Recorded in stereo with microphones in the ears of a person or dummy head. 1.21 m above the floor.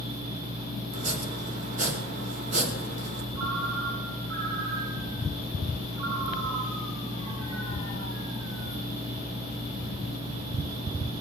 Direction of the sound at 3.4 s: 80° right.